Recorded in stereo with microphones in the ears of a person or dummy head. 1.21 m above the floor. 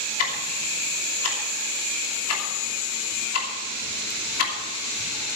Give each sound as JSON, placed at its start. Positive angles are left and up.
{"t": 0.2, "sound": "ticking", "side_deg": 85, "distance_m": 3.0}